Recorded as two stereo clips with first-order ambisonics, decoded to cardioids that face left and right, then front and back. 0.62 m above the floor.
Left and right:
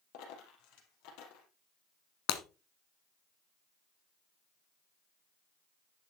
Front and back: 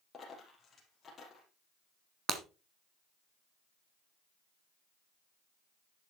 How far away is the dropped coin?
About 3.5 m.